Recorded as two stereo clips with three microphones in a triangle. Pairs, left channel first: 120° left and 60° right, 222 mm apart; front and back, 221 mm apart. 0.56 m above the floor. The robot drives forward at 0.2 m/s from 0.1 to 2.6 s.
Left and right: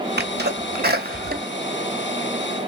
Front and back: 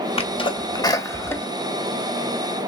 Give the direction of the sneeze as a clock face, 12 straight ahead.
2 o'clock.